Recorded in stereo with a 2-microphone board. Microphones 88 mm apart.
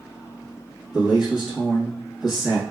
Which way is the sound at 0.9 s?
5° right (ahead or behind).